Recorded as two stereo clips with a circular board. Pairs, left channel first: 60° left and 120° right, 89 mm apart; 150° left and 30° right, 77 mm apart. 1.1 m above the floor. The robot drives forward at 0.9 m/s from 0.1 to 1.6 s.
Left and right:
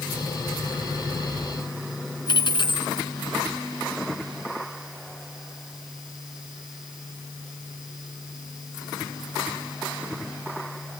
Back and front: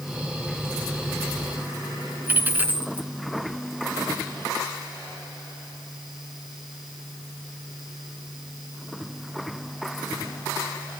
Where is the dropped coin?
35° left, 2.5 m.